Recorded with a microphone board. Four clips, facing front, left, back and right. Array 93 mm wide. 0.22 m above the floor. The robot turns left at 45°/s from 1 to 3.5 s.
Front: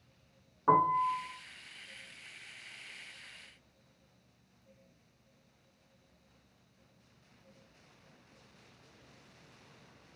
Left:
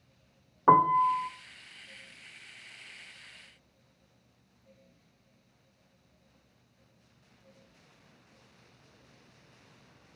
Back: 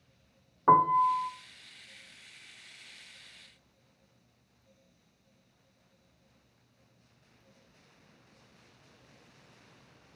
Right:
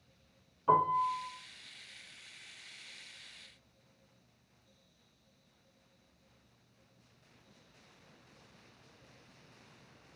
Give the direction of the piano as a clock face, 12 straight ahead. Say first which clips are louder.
Left 7 dB, back 5 dB; 8 o'clock.